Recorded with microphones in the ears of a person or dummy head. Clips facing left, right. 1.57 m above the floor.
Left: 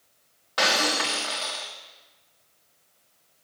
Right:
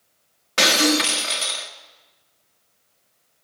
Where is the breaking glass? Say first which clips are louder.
Right 7 dB; 35° right (ahead or behind), 1.5 m.